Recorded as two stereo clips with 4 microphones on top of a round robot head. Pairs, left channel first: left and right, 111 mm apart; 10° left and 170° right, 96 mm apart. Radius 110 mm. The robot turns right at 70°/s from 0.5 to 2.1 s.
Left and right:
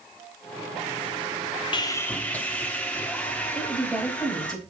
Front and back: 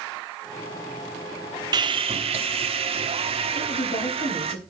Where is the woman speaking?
5° left, 5.5 m.